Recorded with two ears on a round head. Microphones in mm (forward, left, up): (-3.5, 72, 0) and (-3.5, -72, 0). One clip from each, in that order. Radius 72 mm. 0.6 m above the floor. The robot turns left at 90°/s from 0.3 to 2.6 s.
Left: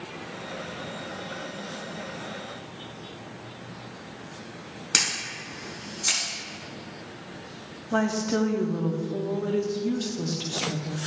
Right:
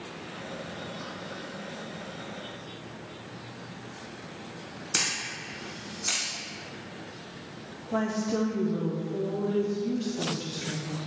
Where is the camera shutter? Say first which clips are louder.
Left 4 dB; 25° left (ahead or behind), 2 m.